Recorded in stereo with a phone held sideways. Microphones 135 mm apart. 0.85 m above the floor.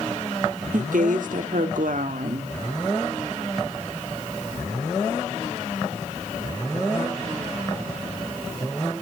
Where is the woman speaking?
75° right (ahead or behind), 1.6 m.